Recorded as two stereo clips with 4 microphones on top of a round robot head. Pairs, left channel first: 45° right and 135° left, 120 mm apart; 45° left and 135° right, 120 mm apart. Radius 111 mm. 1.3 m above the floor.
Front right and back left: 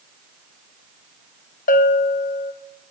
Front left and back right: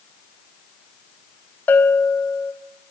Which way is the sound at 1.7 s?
35° right.